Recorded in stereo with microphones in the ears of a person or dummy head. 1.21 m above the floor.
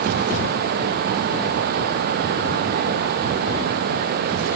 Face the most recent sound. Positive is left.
No sound to turn to.